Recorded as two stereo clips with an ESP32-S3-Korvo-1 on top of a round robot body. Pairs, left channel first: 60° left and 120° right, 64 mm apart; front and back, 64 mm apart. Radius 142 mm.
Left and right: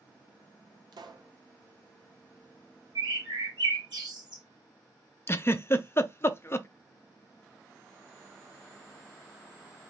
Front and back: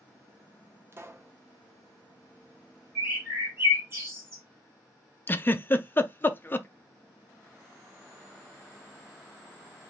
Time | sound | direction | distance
0.9 | a pop | 125° right | 0.7 m
3.0 | a bird | 125° right | 0.8 m
5.3 | a giggle | 40° left | 0.6 m